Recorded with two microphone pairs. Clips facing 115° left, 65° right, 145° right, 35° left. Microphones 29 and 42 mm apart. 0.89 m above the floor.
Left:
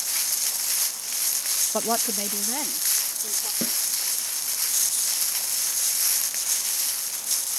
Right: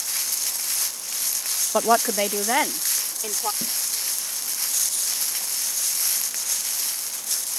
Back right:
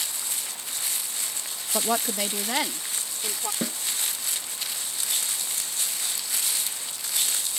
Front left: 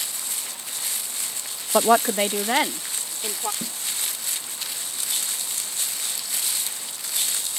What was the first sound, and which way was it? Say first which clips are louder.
A woman speaking: right 9 dB, front left 9 dB; 5° right.